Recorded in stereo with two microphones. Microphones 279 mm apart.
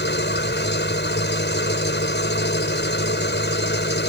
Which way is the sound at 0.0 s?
40° left (ahead or behind).